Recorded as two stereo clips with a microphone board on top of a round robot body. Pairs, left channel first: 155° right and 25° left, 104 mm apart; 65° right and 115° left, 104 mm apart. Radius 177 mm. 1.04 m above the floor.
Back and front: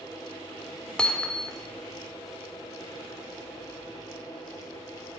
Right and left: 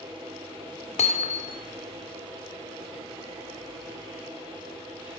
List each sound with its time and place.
1.0 s hammering: 75° right, 1.7 m